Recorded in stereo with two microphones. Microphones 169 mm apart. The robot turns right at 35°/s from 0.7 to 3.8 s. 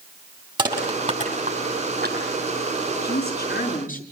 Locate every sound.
0.6 s crushing: 25° right (ahead or behind), 7.5 m; by 2.2 s 80° right, 7.5 m
3.0 s a woman speaking: 80° left, 6 m; by 4.0 s 55° left (ahead or behind), 6 m